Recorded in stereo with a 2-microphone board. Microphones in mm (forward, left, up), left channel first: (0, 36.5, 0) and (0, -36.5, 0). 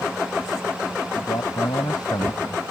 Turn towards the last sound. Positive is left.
turn(degrees=65)  # may be behind; listen again after turning